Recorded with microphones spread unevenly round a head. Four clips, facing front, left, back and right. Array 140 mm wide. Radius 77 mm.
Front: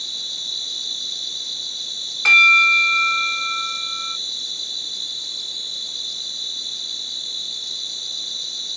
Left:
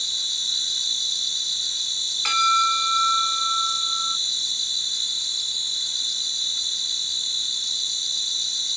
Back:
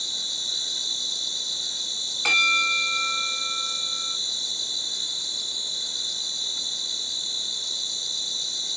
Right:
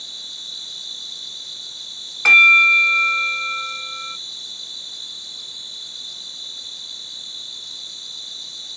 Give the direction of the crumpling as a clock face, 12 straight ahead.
No crumpling in this recording.